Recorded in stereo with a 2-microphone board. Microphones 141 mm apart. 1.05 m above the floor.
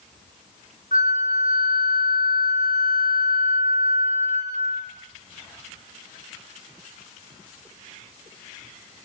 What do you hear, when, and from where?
0.9 s a flute: 70° left (ahead or behind), 2.5 m